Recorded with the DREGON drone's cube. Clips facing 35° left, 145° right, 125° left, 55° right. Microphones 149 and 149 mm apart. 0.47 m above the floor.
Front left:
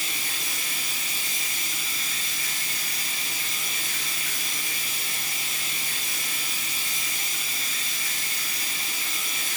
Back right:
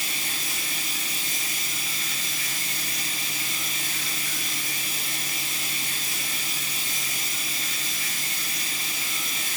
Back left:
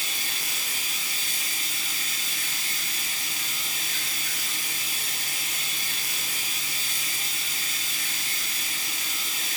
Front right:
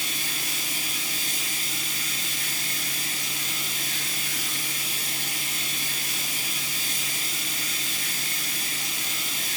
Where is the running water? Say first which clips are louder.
Back right 1 dB, front right 3 dB; 90° left, 1.2 m.